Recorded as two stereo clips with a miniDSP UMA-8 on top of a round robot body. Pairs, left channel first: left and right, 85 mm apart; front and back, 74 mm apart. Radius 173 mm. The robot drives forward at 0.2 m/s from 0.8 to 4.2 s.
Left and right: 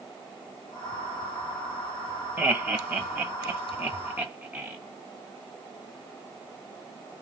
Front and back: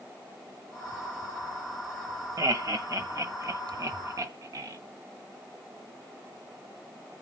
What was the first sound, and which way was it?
Laughter, 155° right.